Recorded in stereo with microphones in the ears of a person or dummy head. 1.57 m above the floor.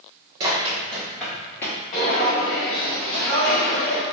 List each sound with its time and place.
0.4 s running footsteps: 25° right (ahead or behind), 1.7 m; by 1.8 s 20° left (ahead or behind), 1.9 m
1.9 s footsteps: 35° left (ahead or behind), 1.8 m; by 4.0 s 5° left (ahead or behind), 1.8 m